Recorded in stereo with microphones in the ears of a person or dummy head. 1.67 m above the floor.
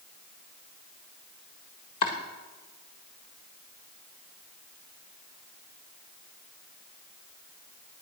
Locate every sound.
2.0 s chopping: 30° left (ahead or behind), 1.5 m